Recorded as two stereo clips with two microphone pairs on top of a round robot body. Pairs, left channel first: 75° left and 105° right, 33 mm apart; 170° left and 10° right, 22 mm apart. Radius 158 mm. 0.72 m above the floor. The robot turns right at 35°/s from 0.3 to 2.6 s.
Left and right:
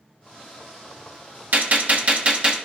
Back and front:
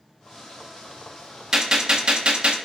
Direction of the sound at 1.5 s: 80° right.